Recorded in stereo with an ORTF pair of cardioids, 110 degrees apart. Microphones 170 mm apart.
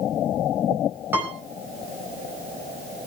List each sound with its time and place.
1.1 s a piano: 10° right, 4.5 m